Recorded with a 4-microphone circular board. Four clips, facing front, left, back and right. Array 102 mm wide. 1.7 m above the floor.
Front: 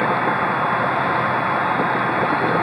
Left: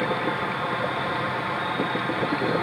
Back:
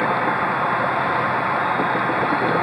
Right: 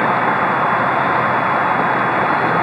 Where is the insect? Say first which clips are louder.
Right 10 dB, front 1 dB; 90° right.